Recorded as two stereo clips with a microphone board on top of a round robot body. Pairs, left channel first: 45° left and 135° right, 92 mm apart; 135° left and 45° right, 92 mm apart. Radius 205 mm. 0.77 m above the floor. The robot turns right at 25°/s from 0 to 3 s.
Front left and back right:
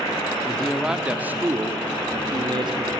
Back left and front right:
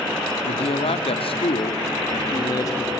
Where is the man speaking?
130° left, 2 m; by 2.9 s 165° right, 2 m.